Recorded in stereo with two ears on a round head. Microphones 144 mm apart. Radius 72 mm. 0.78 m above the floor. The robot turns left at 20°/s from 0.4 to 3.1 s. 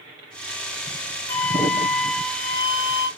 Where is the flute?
20° left, 2.5 m; by 3.1 s 15° right, 2.5 m.